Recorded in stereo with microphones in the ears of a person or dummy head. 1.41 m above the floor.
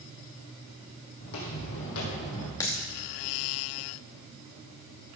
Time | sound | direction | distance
1.2 | footsteps | 55° left (ahead or behind) | 3 m
2.6 | a dropped coin | 20° left (ahead or behind) | 1.0 m